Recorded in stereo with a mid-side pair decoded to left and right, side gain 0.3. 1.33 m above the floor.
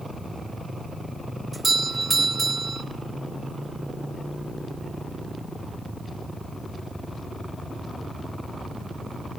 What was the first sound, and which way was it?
A doorbell, 45° right.